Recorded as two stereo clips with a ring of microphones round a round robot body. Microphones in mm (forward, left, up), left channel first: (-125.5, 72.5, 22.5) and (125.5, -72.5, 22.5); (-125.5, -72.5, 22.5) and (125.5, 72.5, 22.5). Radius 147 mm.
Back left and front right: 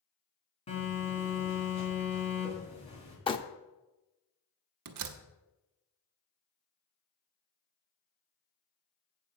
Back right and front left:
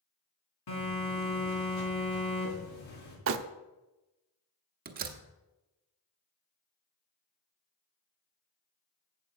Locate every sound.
0.7 s a phone buzzing: 140° right, 3.5 m
3.3 s crumpling: 75° left, 0.6 m
4.8 s a door slam: 25° right, 0.8 m